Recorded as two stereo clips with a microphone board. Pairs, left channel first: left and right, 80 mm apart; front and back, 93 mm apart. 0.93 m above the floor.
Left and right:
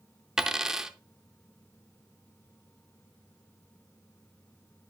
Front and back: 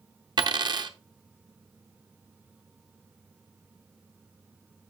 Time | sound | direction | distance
0.4 | a dropped coin | 170° right | 0.7 m